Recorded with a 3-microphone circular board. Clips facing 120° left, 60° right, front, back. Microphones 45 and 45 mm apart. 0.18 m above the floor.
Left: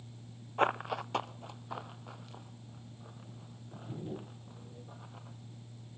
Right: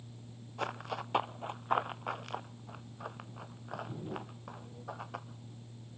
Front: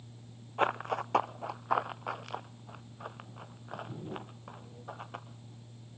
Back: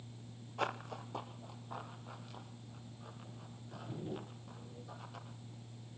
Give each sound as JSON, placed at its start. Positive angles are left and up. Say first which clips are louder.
{"t": 0.6, "sound": "running footsteps", "louder": "left 7 dB, front 9 dB", "azimuth_deg": 65, "distance_m": 0.6}